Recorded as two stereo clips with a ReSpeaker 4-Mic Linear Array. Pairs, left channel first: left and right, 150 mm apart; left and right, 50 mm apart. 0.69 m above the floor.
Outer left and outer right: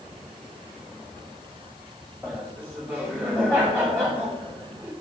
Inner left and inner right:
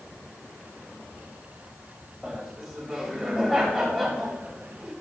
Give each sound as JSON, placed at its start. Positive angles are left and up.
{"t": 2.2, "sound": "laughter", "side_deg": -15, "distance_m": 3.0}